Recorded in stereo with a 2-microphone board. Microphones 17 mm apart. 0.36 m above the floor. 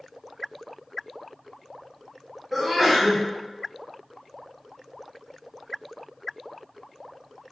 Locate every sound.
2.5 s a sneeze: centre (ahead or behind), 1.8 m